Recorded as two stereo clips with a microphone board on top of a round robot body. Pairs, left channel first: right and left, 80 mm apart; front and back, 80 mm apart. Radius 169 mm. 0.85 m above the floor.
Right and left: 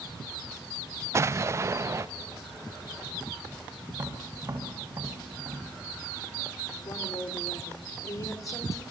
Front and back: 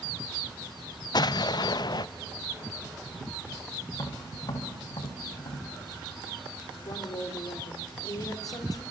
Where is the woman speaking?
45° right, 3.5 m.